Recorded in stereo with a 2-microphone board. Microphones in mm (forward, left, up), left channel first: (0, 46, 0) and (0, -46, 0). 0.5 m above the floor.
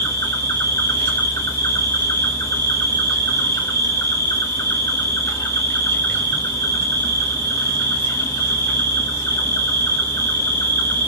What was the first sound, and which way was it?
An insect, 35° left (ahead or behind).